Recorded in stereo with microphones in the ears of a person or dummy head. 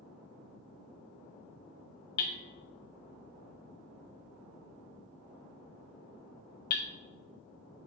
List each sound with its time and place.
2.2 s hammering: 50° left (ahead or behind), 0.5 m